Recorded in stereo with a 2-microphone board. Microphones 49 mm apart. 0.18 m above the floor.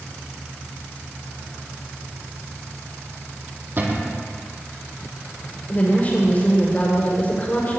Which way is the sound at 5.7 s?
35° left (ahead or behind).